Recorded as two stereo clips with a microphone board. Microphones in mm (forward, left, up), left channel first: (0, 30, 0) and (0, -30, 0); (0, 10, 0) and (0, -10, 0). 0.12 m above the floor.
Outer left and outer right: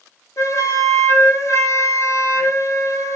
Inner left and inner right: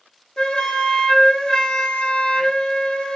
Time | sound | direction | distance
0.4 | a flute | 55° left (ahead or behind) | 0.6 m